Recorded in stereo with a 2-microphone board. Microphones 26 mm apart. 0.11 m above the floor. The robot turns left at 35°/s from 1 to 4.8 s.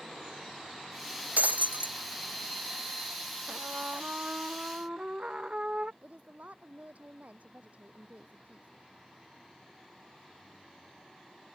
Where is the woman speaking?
65° right (ahead or behind).